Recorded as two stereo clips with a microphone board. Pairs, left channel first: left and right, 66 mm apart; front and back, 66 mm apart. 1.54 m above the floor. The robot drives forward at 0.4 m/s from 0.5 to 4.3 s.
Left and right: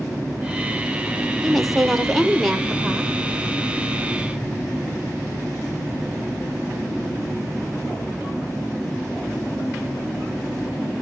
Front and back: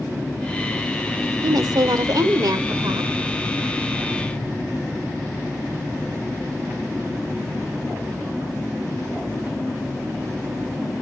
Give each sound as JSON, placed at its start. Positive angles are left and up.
{"t": 1.4, "sound": "a woman speaking", "azimuth_deg": 180, "distance_m": 0.8}